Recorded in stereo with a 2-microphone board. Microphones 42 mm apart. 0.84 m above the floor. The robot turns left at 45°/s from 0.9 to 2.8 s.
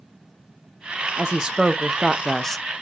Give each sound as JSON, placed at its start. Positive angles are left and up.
{"t": 1.2, "sound": "a woman speaking", "azimuth_deg": -135, "distance_m": 0.6}